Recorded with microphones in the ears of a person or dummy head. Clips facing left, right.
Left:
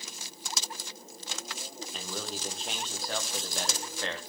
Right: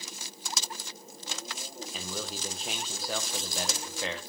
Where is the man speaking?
5° right (ahead or behind), 1.5 m.